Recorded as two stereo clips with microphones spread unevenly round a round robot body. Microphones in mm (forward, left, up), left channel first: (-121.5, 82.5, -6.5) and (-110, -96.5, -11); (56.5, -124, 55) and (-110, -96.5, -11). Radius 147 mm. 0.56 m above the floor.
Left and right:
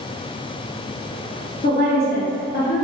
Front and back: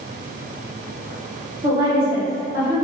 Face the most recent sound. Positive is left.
turn(degrees=115)